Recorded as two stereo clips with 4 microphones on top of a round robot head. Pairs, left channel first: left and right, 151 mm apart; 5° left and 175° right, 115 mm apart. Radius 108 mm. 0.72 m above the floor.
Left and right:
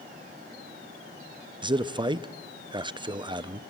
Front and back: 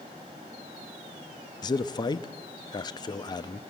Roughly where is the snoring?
No snoring in this recording.